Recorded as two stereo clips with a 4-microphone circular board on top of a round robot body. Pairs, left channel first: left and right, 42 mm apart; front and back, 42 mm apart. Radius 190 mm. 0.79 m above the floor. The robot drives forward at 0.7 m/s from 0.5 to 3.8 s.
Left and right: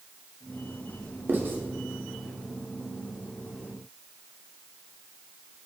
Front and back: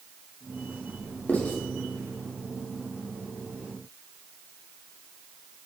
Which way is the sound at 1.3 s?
55° right.